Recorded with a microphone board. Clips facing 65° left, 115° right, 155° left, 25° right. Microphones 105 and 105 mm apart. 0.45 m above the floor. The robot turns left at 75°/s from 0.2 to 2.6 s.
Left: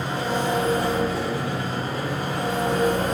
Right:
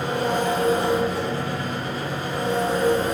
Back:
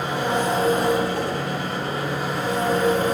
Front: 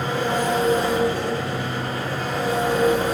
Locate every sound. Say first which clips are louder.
0.0 s an engine running: right 2 dB, even; 130° right, 1.7 m; by 3.1 s 50° left, 1.7 m